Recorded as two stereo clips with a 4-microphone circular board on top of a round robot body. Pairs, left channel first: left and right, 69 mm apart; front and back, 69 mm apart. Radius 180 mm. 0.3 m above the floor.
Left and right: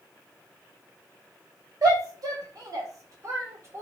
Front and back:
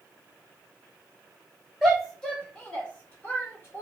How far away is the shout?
About 1.6 m.